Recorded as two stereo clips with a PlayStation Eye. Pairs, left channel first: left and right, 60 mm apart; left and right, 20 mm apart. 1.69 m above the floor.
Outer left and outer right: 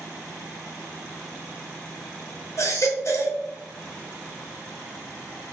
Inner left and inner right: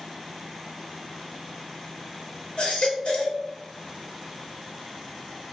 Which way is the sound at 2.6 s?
55° left (ahead or behind).